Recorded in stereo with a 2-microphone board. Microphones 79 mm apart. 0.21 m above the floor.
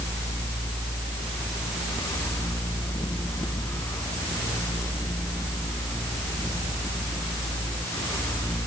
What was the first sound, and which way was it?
Only background noise.